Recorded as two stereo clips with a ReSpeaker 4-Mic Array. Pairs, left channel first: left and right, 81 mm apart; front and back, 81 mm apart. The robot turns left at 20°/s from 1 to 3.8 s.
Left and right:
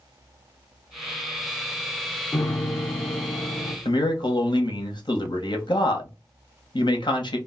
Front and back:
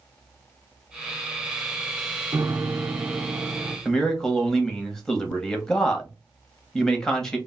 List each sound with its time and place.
2.3 s a piano: 140° left, 0.6 m; by 3.8 s 110° left, 0.6 m
3.9 s a man speaking: 85° left, 1.0 m